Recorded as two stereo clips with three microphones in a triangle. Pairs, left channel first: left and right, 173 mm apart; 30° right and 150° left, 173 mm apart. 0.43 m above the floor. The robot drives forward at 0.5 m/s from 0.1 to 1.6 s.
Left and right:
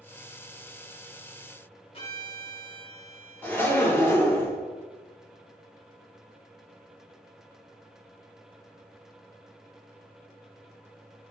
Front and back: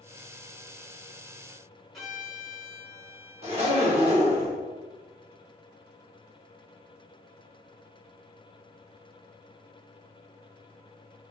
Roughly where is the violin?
Ahead left.